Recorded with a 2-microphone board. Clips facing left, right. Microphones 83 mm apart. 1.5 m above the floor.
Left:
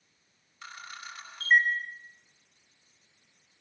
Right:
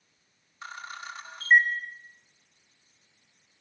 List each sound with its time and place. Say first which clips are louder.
0.6 s a camera shutter: right 4 dB; 30° right (ahead or behind), 5 m